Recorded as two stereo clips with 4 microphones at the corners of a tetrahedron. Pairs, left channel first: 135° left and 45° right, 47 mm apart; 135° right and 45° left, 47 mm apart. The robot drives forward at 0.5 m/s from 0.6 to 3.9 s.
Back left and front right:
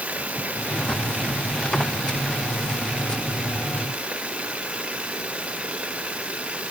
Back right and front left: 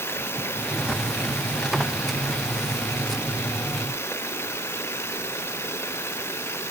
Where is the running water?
105° right; by 6.7 s 110° right.